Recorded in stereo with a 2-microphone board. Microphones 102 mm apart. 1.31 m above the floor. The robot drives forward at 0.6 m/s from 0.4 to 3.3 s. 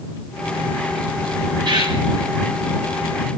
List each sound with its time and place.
1.6 s a bird: 50° right (ahead or behind), 4 m